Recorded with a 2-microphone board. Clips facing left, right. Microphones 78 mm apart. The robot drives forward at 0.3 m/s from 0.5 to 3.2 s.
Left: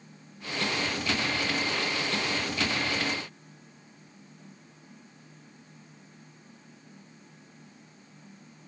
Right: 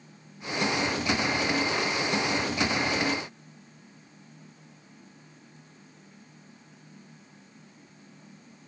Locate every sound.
Only background noise.